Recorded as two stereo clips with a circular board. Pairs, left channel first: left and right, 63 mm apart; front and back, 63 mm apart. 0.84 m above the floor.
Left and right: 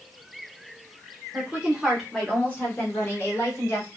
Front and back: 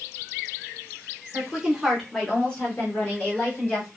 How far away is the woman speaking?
About 0.9 m.